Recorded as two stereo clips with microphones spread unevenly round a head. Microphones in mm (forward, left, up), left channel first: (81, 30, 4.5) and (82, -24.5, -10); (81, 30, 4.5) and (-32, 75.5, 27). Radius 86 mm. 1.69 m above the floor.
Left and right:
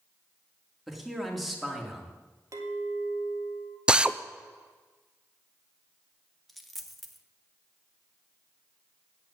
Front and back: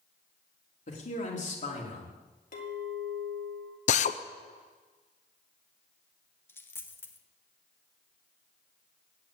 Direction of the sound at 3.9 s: 5° right.